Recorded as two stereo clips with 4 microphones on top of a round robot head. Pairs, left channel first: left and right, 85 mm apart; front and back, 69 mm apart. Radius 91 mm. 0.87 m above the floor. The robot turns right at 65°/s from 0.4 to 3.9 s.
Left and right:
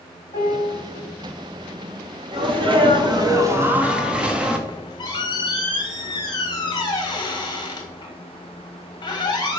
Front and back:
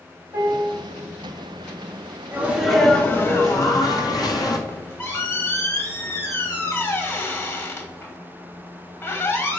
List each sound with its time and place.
0.3 s a piano: 115° left, 3 m; by 0.8 s 140° left, 3 m
2.3 s a sneeze: 115° right, 1.6 m; by 4.6 s 10° right, 1.6 m
4.7 s a squeak: 50° left, 1.7 m